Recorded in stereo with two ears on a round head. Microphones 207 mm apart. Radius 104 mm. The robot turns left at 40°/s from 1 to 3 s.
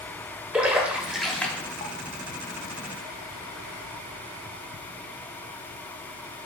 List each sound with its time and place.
0.5 s a splash: 5° right (ahead or behind), 0.6 m; by 1.9 s 20° left (ahead or behind), 0.6 m